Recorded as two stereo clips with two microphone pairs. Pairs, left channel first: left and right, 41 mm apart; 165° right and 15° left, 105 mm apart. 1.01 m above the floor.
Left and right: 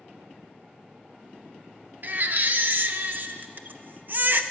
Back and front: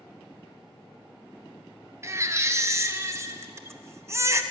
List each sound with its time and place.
2.0 s a baby crying: 45° right, 0.6 m